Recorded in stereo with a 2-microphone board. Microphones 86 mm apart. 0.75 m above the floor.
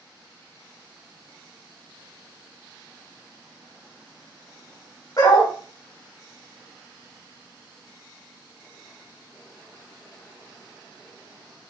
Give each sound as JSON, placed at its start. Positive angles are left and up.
{"t": 5.2, "sound": "a dog barking", "side_deg": 50, "distance_m": 1.2}